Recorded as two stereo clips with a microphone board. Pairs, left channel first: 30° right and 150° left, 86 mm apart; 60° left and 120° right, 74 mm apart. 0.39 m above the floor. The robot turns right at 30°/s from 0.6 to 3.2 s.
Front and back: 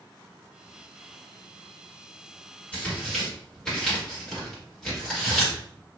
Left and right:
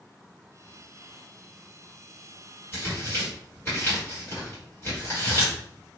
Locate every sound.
2.7 s tearing paper: 35° left, 1.7 m; by 5.5 s 50° left, 1.7 m